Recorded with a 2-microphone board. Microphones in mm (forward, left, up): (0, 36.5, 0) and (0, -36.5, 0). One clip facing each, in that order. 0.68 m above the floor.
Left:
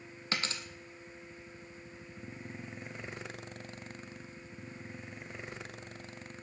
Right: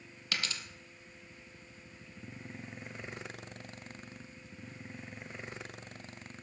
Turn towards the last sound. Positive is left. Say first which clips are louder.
# left 2 dB
turn(degrees=30)  # may be behind; listen again after turning